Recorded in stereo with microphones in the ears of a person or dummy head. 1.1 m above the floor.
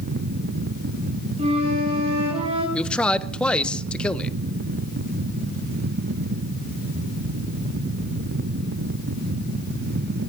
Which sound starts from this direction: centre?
A man speaking, at 2.7 s.